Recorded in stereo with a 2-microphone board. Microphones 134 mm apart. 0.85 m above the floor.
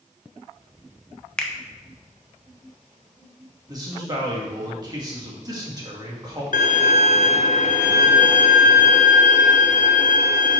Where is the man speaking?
30° right (ahead or behind), 1.6 m.